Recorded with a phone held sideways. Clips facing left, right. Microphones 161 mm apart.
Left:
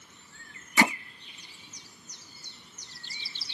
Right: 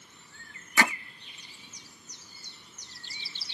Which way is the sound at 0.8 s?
20° left (ahead or behind).